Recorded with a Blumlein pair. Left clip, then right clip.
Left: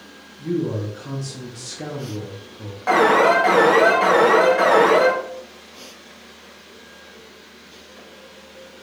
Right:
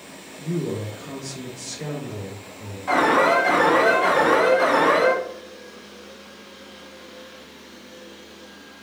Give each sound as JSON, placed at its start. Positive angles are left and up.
{"t": 0.4, "sound": "a man speaking", "azimuth_deg": 60, "distance_m": 1.3}
{"t": 2.9, "sound": "an alarm", "azimuth_deg": 45, "distance_m": 1.3}